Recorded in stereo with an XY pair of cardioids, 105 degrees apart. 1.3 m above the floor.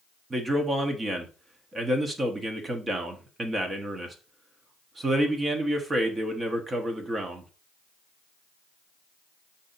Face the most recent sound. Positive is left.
turn(degrees=-30)